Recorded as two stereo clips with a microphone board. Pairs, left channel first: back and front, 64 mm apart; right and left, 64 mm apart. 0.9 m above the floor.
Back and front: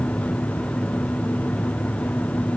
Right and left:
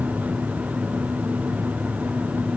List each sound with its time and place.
Only background noise.